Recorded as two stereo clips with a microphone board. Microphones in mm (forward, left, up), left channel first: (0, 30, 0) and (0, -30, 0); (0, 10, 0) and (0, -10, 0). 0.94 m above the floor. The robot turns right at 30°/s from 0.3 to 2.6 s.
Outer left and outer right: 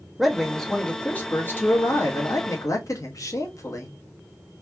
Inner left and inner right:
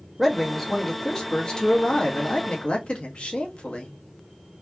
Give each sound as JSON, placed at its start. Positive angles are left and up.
{"t": 0.2, "sound": "a man speaking", "azimuth_deg": 0, "distance_m": 1.4}